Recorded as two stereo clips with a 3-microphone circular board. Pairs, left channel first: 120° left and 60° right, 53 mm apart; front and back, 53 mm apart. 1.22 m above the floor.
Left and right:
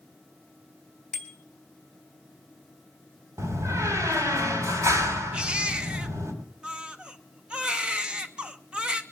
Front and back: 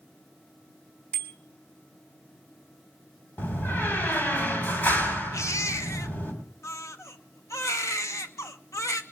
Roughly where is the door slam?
Ahead right.